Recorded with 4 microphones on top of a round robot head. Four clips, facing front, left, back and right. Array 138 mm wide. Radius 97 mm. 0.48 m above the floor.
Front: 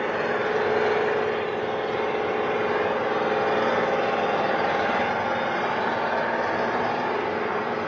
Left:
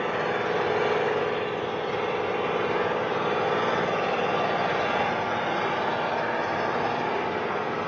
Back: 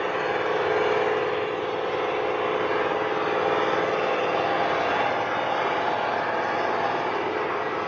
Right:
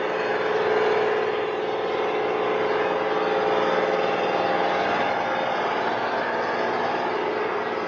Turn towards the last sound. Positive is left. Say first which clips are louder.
# right 3 dB, even
turn(degrees=-45)